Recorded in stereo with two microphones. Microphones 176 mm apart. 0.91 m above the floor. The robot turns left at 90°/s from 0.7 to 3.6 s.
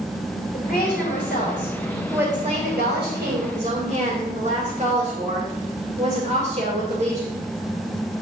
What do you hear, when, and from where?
0.5 s a woman speaking: 120° left, 3.5 m; by 7.4 s 140° right, 3.5 m